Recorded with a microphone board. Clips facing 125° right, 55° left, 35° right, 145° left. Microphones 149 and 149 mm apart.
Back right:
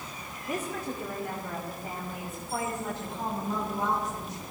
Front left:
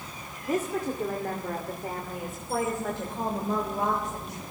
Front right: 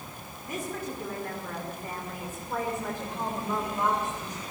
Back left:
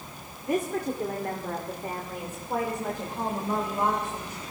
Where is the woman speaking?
110° left, 2 m; by 4.4 s 60° left, 3.5 m.